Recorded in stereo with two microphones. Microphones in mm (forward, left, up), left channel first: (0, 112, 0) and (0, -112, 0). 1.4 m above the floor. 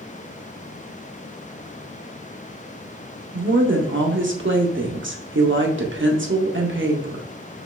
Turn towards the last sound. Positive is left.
turn(degrees=-60)  # may be behind; listen again after turning